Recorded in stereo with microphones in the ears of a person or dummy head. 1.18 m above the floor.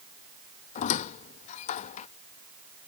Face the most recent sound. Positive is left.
turn(degrees=45)  # may be behind; listen again after turning